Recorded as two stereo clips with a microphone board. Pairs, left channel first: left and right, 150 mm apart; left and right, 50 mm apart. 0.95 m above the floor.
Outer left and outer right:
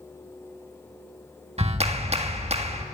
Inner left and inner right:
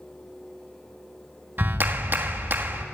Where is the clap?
45° right (ahead or behind), 1.6 m.